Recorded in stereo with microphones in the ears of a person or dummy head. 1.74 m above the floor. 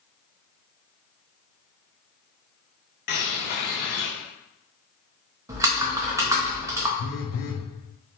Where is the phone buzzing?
70° left (ahead or behind), 0.9 m.